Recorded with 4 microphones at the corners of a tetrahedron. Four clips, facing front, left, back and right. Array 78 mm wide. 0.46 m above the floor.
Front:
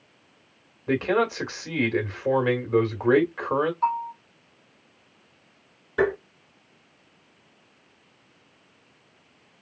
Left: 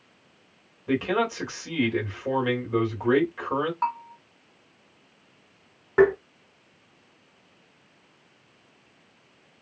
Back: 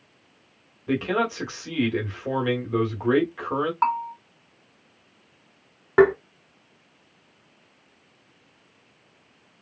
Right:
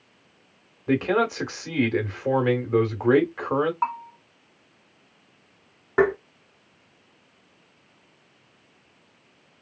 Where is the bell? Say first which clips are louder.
Right 1 dB, back 1 dB; 170° right, 1.1 m.